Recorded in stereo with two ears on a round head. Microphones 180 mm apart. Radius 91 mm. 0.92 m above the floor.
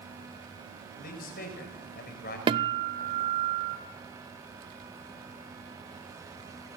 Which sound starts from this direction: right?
A guitar, at 2.5 s.